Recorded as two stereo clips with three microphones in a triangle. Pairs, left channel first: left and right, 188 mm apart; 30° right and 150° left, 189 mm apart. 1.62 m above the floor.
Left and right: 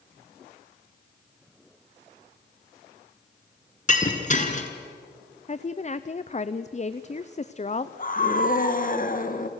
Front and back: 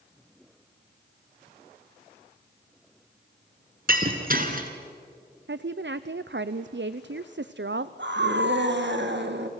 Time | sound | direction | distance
3.9 | breaking glass | 125° left | 2.5 m
5.5 | a woman speaking | 140° left | 0.6 m
8.0 | a scream | 130° left | 1.9 m